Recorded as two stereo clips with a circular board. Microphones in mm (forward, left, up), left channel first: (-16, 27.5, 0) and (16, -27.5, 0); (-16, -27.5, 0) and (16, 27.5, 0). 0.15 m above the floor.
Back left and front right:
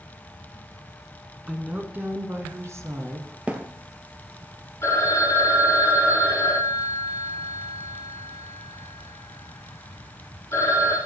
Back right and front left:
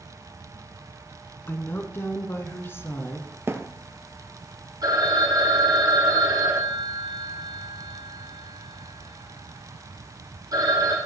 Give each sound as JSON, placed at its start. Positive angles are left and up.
{"t": 1.5, "sound": "a woman speaking", "azimuth_deg": -120, "distance_m": 1.7}
{"t": 3.5, "sound": "a thud", "azimuth_deg": 10, "distance_m": 1.2}
{"t": 4.8, "sound": "a phone ringing", "azimuth_deg": 70, "distance_m": 3.0}